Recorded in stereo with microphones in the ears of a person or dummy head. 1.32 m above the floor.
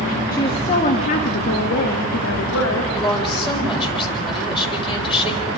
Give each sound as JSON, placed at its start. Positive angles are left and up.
{"t": 0.3, "sound": "a woman speaking", "side_deg": 20, "distance_m": 1.7}
{"t": 2.9, "sound": "a woman speaking", "side_deg": 25, "distance_m": 6.0}